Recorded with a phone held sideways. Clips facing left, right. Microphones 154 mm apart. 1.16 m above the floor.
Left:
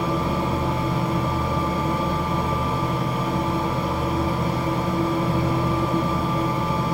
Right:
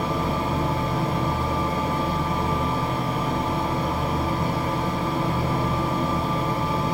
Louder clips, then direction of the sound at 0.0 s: Left 2 dB; centre (ahead or behind).